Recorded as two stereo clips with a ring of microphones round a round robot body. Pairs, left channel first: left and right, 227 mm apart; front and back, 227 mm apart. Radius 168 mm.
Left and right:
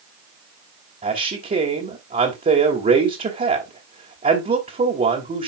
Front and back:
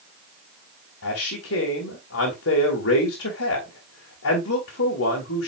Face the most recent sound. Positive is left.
turn(degrees=-35)